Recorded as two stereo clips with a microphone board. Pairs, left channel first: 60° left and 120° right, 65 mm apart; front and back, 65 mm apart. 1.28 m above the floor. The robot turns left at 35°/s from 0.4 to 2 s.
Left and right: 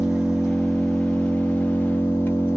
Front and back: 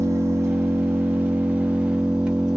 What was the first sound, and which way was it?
An engine running, 165° left.